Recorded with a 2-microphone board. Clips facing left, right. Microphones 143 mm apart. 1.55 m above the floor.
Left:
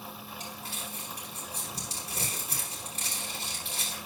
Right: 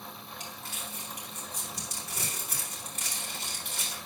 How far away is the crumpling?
About 4.5 m.